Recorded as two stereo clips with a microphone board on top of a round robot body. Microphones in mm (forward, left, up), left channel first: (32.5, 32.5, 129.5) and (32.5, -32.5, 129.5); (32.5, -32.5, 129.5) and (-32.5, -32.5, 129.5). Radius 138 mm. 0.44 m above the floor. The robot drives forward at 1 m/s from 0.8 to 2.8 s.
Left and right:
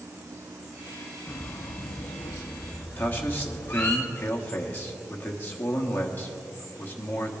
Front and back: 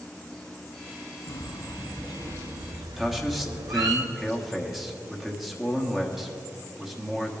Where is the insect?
75° right, 0.9 m; by 7.4 s 160° right, 2 m.